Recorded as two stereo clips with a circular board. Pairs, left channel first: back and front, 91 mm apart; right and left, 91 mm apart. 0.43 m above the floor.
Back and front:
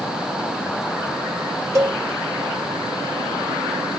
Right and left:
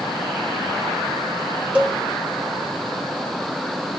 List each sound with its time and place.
1.8 s a cowbell: 20° left, 1.0 m